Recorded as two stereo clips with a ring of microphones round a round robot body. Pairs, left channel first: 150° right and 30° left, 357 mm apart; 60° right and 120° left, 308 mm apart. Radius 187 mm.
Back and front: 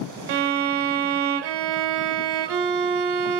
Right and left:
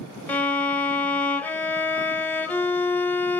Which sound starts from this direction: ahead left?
A violin, at 0.3 s.